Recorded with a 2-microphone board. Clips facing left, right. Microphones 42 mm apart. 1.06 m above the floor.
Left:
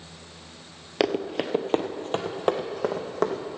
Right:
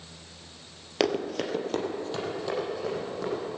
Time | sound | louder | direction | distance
1.0 | running footsteps | left 2 dB | 10° left (ahead or behind) | 1.1 m